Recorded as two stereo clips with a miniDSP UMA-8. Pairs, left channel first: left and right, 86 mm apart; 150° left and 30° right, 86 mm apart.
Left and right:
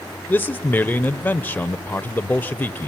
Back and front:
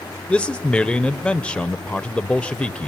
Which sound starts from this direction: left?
A man speaking, at 0.3 s.